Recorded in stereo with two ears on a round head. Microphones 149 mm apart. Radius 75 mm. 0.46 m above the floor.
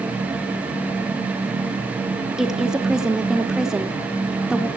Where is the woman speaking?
5° right (ahead or behind), 0.8 m.